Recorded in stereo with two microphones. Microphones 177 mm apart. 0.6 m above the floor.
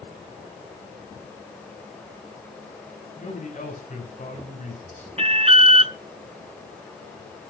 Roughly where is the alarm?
Right.